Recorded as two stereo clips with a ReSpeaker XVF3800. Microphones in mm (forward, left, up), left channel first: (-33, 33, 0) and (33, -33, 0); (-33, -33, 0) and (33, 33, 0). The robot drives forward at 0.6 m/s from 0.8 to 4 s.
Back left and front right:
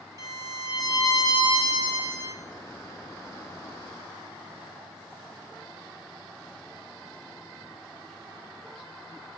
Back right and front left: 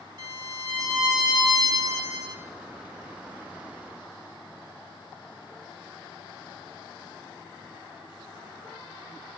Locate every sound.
0.2 s a violin: 5° left, 4 m; by 2.4 s 10° left, 3 m